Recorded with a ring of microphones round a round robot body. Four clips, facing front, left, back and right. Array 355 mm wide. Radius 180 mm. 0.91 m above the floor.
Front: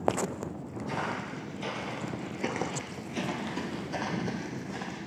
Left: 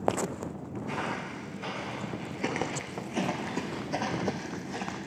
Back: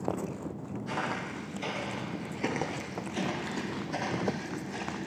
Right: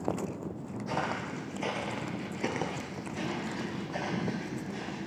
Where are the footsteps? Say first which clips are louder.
Right 2 dB, even; 105° right, 1.8 m; by 5.0 s 75° left, 2.5 m.